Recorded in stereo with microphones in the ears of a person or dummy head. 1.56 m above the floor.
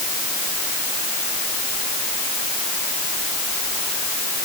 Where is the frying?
No frying in this recording.